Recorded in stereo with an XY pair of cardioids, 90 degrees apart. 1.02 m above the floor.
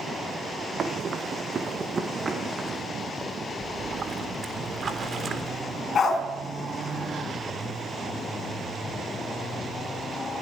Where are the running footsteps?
55° right, 4 m; by 2.8 s 20° right, 5 m.